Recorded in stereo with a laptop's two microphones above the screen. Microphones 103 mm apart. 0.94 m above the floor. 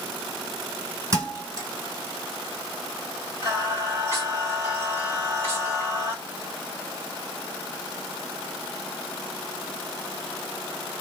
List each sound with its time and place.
1.1 s a thud: 35° right (ahead or behind), 2.5 m
3.4 s singing: 25° right (ahead or behind), 1.8 m